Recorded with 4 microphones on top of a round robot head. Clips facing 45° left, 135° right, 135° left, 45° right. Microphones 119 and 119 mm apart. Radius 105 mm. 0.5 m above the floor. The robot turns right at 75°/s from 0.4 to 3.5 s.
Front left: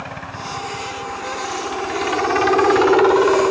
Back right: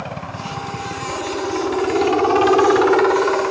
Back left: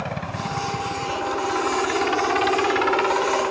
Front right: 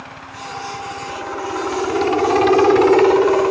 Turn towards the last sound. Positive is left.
turn(degrees=-20)